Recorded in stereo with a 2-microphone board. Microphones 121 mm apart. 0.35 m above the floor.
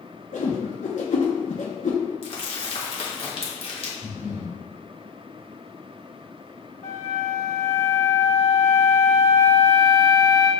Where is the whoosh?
85° left, 1.1 m.